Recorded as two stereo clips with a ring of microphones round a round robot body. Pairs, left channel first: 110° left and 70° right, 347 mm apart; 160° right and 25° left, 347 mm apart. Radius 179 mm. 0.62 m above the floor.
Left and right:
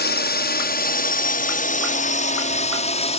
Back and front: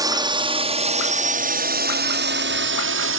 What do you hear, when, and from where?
0.0 s a drone: 90° left; by 3.2 s 50° left